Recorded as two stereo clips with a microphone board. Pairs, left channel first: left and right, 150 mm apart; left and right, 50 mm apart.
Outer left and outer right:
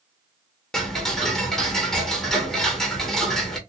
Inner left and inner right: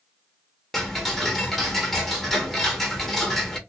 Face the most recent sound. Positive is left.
turn(degrees=5)  # may be behind; listen again after turning